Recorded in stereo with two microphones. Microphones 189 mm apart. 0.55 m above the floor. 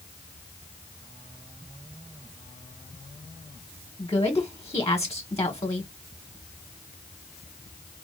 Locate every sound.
4.0 s a woman speaking: 15° left (ahead or behind), 1.6 m